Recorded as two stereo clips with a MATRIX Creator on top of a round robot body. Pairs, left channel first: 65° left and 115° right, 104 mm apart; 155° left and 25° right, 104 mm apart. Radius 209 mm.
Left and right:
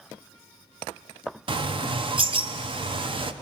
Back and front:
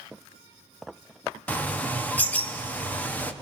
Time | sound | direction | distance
1.5 | a bird | 130° right | 1.0 m